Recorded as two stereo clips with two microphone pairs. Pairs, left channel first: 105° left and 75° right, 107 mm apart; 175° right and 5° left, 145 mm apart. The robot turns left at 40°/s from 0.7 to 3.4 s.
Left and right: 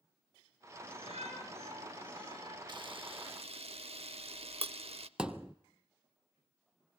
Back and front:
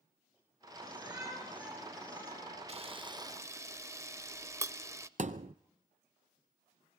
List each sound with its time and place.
0.8 s a shout: 45° right, 7.5 m; by 2.6 s 115° right, 7.5 m
2.7 s a camera shutter: 35° right, 0.5 m; by 5.1 s 65° right, 0.5 m
5.2 s a thud: 5° left, 0.7 m